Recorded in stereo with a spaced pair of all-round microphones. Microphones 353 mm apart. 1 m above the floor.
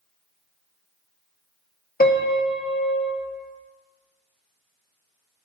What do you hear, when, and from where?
2.0 s a piano: 25° left (ahead or behind), 0.7 m